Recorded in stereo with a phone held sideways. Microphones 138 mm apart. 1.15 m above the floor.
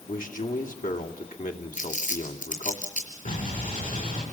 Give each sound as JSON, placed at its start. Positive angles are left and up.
{"t": 0.1, "sound": "a man speaking", "side_deg": 85, "distance_m": 2.5}
{"t": 1.7, "sound": "crumpling", "side_deg": 75, "distance_m": 5.5}
{"t": 3.2, "sound": "an explosion", "side_deg": 80, "distance_m": 7.5}